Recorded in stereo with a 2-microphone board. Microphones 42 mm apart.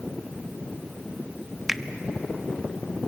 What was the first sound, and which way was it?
A finger snap, 5° right (ahead or behind).